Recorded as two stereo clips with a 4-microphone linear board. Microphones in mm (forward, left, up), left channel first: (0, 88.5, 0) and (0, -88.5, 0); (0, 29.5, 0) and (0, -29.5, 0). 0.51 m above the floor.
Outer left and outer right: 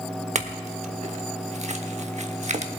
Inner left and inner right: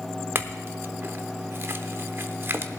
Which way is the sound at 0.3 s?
40° right (ahead or behind).